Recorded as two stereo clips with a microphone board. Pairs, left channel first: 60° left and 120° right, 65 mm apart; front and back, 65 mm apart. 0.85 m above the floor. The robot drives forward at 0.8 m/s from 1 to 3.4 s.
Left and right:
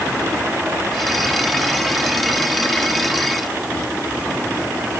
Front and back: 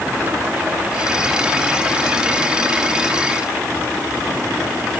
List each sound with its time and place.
Only background noise.